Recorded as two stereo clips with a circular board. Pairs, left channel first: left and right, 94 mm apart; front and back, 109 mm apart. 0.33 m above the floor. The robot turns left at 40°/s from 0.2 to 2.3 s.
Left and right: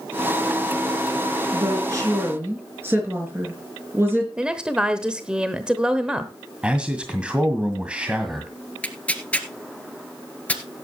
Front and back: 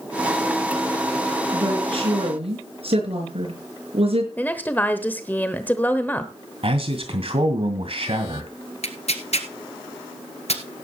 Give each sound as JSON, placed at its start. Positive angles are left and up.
{"t": 1.5, "sound": "a woman speaking", "azimuth_deg": -125, "distance_m": 5.0}
{"t": 4.4, "sound": "a woman speaking", "azimuth_deg": -30, "distance_m": 1.0}
{"t": 6.6, "sound": "a man speaking", "azimuth_deg": -165, "distance_m": 1.9}
{"t": 8.8, "sound": "tearing paper", "azimuth_deg": 15, "distance_m": 1.5}